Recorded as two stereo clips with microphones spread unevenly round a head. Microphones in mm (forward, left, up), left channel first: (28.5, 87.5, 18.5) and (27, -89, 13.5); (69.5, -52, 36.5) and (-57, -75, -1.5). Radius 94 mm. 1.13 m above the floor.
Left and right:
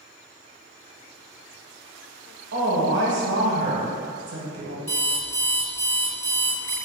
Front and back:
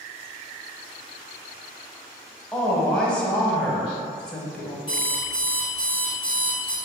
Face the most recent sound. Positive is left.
turn(degrees=20)